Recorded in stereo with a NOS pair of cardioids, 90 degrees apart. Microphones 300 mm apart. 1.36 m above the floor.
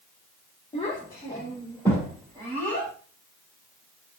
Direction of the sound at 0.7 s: 15° left.